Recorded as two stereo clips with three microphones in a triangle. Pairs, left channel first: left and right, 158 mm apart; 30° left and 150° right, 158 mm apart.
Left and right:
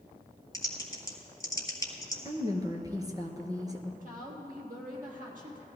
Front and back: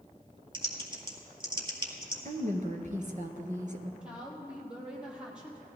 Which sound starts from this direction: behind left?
Typing on a keyboard, at 0.5 s.